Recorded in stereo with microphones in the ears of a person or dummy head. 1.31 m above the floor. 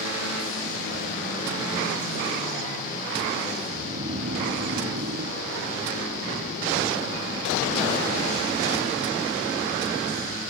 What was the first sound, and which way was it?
Snoring, 30° right (ahead or behind).